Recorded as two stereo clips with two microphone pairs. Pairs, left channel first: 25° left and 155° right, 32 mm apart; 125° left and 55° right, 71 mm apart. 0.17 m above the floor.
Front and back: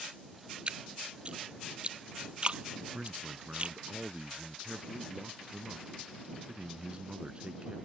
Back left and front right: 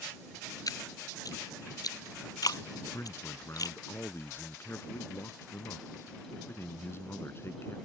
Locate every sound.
0.7 s dripping: 155° left
2.8 s a man speaking: 165° left